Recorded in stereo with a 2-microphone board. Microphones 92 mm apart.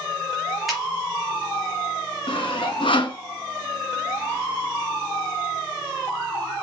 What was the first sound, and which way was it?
A finger snap, centre (ahead or behind).